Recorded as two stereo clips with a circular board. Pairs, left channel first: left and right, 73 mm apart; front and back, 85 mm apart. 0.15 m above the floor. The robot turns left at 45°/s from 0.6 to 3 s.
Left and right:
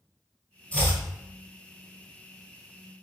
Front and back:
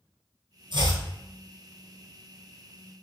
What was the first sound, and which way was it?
Chopping, 160° left.